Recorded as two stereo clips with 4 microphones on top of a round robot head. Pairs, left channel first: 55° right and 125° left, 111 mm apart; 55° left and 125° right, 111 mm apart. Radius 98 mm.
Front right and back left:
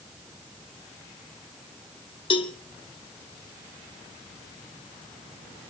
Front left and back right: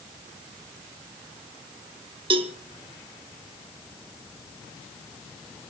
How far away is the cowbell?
About 1.5 m.